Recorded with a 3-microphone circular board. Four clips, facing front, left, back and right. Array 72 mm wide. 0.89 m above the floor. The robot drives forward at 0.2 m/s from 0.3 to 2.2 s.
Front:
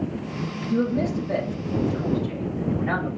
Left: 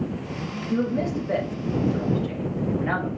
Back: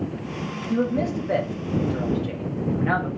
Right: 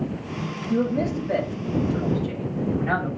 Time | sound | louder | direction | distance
0.7 | a man speaking | right 1 dB, even | 155° left | 0.7 m